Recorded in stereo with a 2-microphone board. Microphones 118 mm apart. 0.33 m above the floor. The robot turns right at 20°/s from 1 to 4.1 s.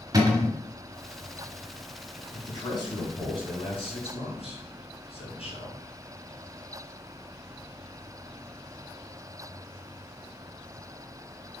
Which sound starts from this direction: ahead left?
A man speaking, at 2.3 s.